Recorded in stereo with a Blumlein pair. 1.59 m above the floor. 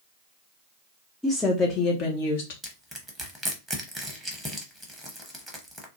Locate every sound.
1.2 s a woman speaking: 5° left, 0.5 m; by 2.5 s 55° left, 0.8 m
2.6 s crushing: 5° right, 0.8 m